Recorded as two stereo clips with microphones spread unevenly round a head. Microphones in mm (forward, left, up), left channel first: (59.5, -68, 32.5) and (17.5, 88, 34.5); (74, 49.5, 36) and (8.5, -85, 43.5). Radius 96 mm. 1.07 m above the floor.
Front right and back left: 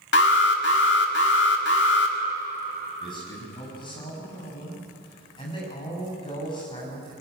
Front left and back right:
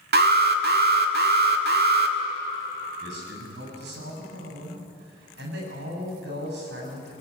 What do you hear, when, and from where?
0.1 s an alarm: 105° right, 1.7 m
3.0 s a man speaking: 140° right, 7 m